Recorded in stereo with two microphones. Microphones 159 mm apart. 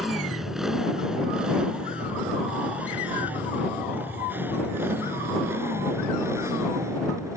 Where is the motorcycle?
Centre (ahead or behind); by 7.4 s 20° right (ahead or behind).